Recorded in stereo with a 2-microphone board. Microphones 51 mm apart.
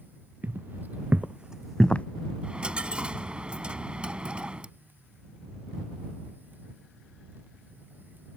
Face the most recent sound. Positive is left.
turn(degrees=-20)  # may be behind; listen again after turning